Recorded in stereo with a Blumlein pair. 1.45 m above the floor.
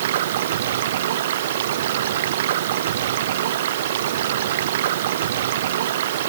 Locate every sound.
0.0 s running water: 60° right